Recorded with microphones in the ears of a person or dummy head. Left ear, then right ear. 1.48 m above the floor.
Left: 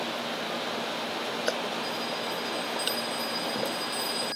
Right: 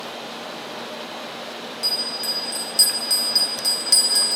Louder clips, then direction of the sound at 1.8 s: Right 7 dB; 80° right.